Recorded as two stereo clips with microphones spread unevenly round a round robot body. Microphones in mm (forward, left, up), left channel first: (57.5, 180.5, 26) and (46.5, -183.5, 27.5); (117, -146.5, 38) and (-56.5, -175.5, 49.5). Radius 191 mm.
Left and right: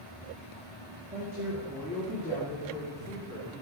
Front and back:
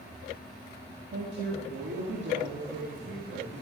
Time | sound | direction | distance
1.1 | a woman speaking | 170° right | 2.0 m